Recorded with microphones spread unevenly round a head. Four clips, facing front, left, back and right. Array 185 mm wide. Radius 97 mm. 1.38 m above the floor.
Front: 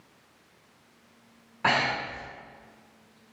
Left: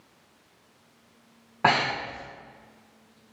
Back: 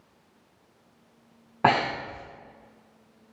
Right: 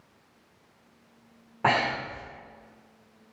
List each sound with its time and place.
1.6 s breathing: 165° left, 1.5 m